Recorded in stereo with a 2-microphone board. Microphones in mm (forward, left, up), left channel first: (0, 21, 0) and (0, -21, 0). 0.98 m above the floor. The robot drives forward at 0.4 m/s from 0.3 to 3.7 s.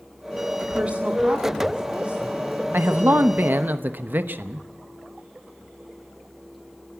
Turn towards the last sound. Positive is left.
turn(degrees=-55)  # may be behind; listen again after turning